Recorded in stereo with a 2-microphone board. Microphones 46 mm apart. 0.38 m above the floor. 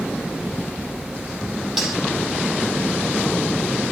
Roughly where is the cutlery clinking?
Centre.